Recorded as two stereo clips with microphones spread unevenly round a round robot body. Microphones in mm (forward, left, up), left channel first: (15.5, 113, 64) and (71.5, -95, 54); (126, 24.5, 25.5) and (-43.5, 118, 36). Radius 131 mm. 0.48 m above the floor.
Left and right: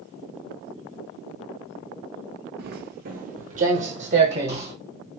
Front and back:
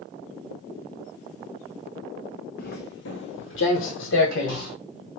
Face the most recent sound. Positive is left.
turn(degrees=-15)